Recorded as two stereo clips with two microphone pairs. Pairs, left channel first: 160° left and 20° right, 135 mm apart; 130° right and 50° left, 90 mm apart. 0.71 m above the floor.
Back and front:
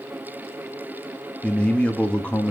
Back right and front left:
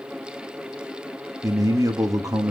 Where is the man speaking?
80° left, 0.6 m.